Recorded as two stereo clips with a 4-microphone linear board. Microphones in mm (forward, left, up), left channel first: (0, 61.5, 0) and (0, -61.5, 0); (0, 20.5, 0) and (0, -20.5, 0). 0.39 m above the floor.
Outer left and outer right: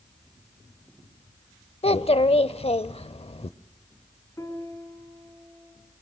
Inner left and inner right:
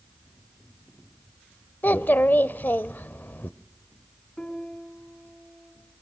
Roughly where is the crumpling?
No crumpling in this recording.